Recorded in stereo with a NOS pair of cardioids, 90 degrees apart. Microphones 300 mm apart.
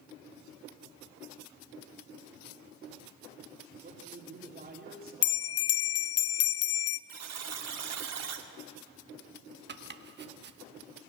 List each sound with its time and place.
3.8 s a man speaking: 30° right, 3.5 m
5.2 s a bell: 50° left, 0.5 m
7.1 s a buzzer: 60° right, 2 m
9.7 s chopping: 35° right, 1.5 m